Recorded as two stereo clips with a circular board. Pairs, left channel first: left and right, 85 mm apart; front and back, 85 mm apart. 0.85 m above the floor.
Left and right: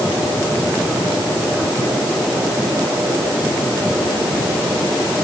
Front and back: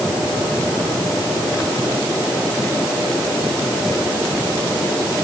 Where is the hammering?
I don't hear hammering.